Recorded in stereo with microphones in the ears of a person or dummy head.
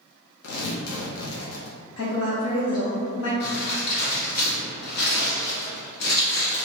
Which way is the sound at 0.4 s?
75° left (ahead or behind).